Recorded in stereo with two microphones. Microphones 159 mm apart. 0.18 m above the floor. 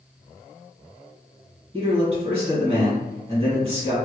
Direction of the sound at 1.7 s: 40° right (ahead or behind).